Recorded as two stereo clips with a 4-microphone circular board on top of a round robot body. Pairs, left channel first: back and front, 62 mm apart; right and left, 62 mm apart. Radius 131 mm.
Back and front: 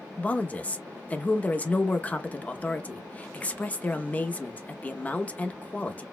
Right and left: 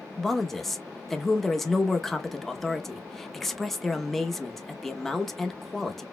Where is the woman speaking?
170° right, 0.9 m.